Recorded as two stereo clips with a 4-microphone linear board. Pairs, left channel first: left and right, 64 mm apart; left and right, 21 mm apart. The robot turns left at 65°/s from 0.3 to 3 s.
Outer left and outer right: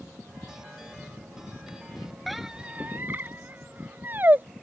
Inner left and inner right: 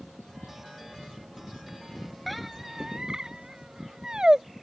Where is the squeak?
Centre (ahead or behind); by 4.5 s 30° right (ahead or behind).